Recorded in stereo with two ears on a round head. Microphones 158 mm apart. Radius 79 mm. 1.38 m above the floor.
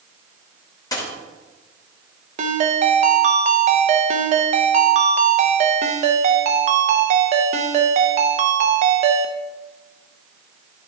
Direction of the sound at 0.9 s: 20° left (ahead or behind).